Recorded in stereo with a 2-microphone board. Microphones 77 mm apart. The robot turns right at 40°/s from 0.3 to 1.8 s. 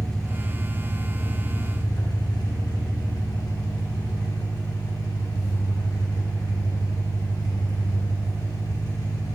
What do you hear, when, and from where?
0.0 s an engine running: 5° left, 1.1 m; by 9.3 s 65° left, 1.1 m